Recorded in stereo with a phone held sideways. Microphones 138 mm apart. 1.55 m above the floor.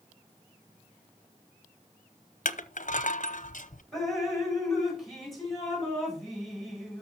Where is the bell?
No bell in this recording.